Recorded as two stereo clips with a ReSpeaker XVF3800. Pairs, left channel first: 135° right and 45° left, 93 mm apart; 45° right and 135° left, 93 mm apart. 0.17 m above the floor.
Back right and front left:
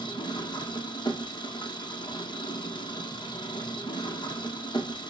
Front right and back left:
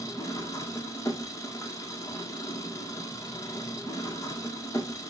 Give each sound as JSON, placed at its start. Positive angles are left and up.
{"t": 0.0, "sound": "an engine running", "azimuth_deg": -100, "distance_m": 3.0}